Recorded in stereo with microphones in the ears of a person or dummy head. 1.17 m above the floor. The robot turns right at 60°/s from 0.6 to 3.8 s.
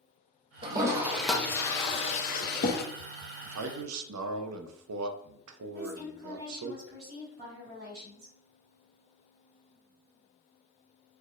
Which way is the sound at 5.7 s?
70° right (ahead or behind).